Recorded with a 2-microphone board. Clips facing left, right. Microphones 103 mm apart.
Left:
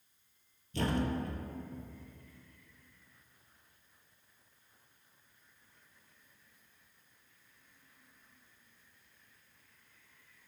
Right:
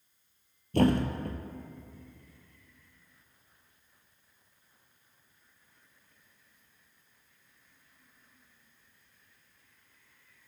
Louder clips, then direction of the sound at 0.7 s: Right 7 dB; 60° right (ahead or behind).